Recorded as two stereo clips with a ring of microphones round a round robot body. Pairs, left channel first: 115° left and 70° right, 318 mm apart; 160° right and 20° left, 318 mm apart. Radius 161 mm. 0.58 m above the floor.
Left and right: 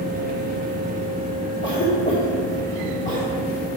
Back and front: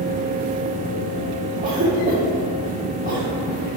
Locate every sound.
1.6 s a cough: 75° left, 1.6 m